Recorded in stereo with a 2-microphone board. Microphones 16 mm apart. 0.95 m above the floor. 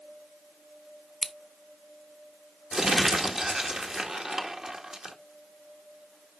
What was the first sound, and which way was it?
Scissors, centre (ahead or behind).